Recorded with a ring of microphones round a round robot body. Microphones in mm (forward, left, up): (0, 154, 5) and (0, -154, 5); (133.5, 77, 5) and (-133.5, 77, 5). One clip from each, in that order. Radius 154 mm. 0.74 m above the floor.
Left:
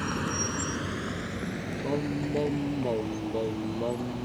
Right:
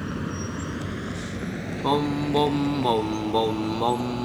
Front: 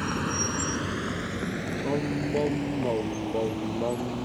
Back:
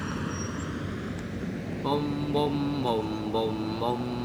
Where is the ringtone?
I don't hear a ringtone.